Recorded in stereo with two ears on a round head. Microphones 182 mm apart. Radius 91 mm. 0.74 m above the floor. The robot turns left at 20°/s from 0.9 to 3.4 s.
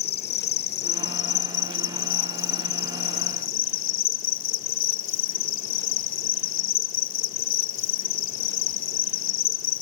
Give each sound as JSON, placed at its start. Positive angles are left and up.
{"t": 0.0, "sound": "an insect", "azimuth_deg": 125, "distance_m": 0.9}